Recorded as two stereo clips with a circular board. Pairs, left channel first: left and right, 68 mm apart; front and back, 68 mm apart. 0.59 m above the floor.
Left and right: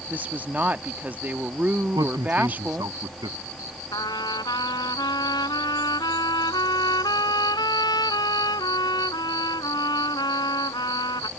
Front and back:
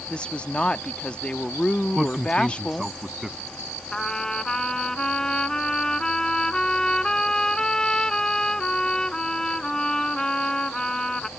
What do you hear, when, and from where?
0.1 s a woman speaking: 55° right
1.9 s a man speaking: 95° right
3.9 s a trumpet: 80° left